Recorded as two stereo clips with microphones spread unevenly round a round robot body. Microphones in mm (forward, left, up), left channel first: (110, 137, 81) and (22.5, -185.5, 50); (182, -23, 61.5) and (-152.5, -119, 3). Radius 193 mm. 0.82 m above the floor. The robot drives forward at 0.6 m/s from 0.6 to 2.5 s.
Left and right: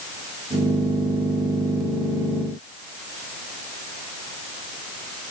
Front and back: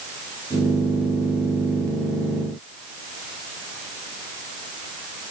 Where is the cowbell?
No cowbell in this recording.